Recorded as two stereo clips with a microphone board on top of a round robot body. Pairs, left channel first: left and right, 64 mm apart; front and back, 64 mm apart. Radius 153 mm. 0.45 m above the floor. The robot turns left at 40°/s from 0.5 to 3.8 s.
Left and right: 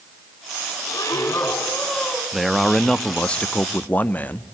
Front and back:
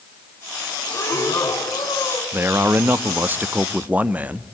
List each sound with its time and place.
0.9 s breathing: 55° left, 2.5 m; by 2.2 s straight ahead, 2.5 m
2.3 s a man speaking: 170° right, 0.9 m; by 4.5 s 130° left, 0.9 m